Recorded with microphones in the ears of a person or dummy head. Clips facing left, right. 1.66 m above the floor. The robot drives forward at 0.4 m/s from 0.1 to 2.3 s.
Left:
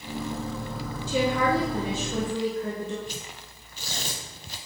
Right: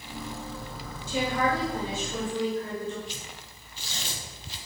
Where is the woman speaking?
70° left (ahead or behind), 1.8 m; by 3.0 s 55° left (ahead or behind), 2 m.